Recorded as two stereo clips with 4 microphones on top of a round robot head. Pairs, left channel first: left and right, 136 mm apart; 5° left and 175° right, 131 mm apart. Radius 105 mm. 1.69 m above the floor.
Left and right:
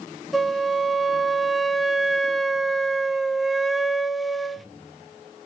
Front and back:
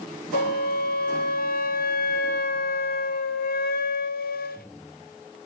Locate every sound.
0.3 s a flute: straight ahead, 0.7 m